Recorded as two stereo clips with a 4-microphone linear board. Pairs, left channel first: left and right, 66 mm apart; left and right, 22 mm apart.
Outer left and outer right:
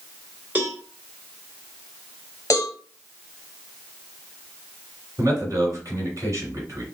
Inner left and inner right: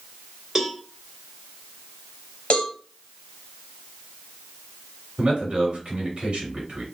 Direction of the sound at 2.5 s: 50° left (ahead or behind).